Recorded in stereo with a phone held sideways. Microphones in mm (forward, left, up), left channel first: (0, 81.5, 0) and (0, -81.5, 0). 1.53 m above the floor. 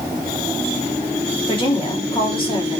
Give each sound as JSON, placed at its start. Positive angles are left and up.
{"t": 1.5, "sound": "a woman speaking", "side_deg": 30, "distance_m": 3.5}